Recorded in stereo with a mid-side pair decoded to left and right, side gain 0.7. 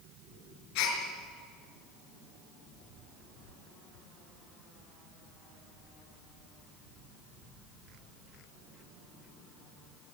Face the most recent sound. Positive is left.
turn(degrees=70)